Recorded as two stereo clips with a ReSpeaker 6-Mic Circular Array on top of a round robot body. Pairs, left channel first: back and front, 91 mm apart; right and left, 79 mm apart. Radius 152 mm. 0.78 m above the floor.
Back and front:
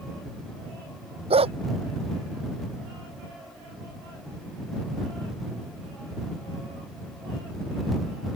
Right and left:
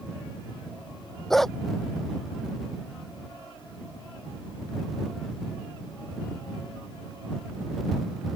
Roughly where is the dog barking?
Ahead.